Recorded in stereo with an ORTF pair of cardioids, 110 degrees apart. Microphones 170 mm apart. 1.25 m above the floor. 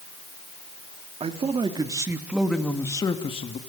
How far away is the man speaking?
About 3.5 m.